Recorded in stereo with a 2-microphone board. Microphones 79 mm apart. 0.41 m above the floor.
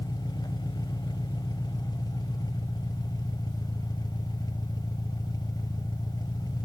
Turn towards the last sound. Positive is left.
turn(degrees=60)  # may be behind; listen again after turning